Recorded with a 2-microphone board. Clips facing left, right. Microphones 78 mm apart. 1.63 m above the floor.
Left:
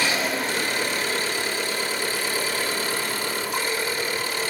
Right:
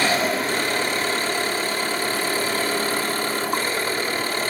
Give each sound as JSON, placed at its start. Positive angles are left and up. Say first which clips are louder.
{"t": 0.0, "sound": "an engine running", "louder": "right 3 dB", "side_deg": -50, "distance_m": 4.0}